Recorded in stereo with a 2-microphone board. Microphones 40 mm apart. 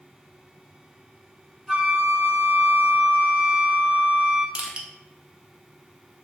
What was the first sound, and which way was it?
A flute, 10° right (ahead or behind).